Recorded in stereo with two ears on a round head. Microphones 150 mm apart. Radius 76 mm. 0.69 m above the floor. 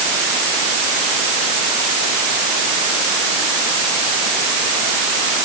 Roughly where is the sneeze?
I don't hear a sneeze.